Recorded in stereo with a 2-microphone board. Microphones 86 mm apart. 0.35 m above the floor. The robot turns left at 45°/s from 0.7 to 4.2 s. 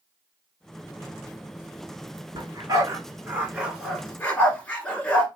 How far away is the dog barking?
About 1.4 m.